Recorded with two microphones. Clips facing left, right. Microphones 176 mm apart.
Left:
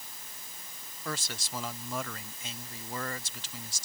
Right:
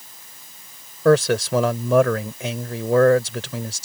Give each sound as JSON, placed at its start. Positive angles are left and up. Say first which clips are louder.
{"t": 1.1, "sound": "a man speaking", "louder": "right 24 dB", "side_deg": -75}